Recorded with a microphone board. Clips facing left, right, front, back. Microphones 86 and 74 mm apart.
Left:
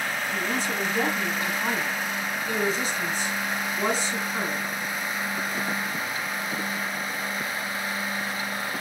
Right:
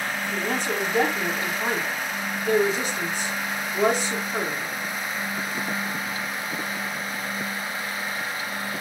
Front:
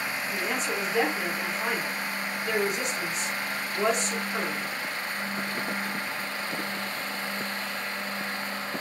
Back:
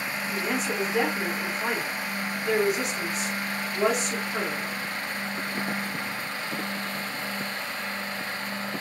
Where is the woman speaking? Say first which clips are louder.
Right 3 dB, back 3 dB; 95° right, 2 m.